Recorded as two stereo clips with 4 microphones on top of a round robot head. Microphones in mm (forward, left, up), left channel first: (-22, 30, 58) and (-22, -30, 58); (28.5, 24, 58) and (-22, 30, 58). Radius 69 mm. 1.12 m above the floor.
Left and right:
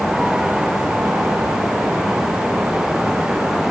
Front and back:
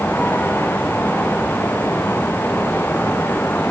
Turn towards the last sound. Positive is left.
No sound to turn to.